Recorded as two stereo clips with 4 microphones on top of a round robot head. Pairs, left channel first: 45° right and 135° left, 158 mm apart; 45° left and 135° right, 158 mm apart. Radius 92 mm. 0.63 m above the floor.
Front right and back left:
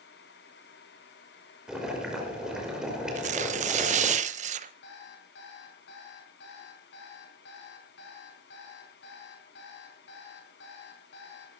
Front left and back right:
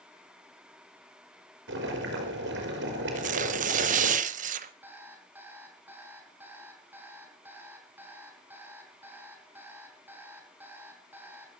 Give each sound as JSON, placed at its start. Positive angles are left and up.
{"t": 1.7, "sound": "boiling", "azimuth_deg": -140, "distance_m": 5.5}
{"t": 3.1, "sound": "tearing paper", "azimuth_deg": 180, "distance_m": 0.8}
{"t": 4.8, "sound": "an alarm clock", "azimuth_deg": -55, "distance_m": 4.0}